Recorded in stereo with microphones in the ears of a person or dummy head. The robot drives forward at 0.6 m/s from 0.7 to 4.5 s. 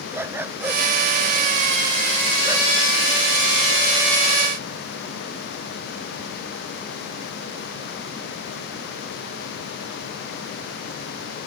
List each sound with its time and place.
0.1 s a dog barking: 10° right (ahead or behind); by 2.7 s 15° right (ahead or behind)